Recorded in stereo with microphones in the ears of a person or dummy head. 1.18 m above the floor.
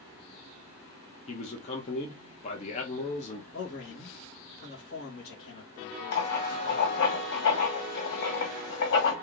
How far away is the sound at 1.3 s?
About 0.8 m.